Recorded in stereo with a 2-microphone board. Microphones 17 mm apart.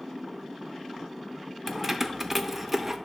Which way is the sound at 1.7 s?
20° right (ahead or behind).